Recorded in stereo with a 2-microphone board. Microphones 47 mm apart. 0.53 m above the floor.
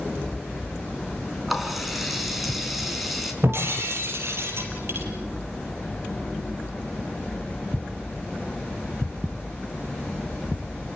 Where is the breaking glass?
60° right (ahead or behind), 4 m.